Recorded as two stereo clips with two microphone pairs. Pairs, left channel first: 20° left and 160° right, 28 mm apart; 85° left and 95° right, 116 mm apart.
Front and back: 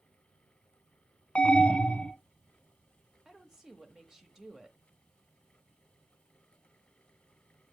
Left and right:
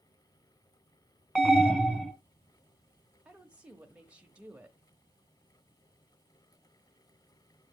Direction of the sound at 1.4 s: Straight ahead.